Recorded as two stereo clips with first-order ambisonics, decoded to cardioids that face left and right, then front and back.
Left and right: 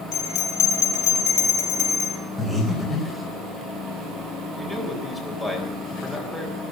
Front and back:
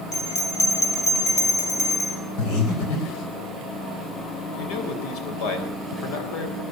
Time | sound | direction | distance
0.1 | a bell | 55° left | 3.5 m
2.4 | breathing | 10° left | 4 m
4.6 | a man speaking | 10° left | 3.5 m